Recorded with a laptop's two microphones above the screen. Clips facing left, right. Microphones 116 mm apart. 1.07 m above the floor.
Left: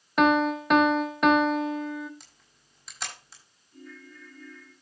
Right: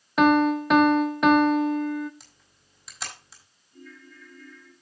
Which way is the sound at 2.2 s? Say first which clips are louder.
Right 1 dB; centre (ahead or behind).